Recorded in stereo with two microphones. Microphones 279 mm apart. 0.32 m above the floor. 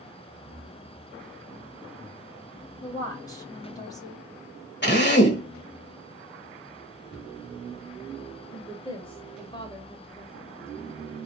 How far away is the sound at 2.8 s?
About 2.0 m.